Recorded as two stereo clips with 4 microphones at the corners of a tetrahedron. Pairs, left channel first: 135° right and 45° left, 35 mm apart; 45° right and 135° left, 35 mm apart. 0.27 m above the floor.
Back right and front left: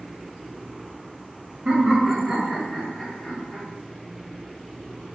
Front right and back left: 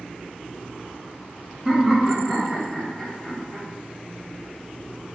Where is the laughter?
60° left, 1.2 m; by 3.6 s 90° right, 1.3 m.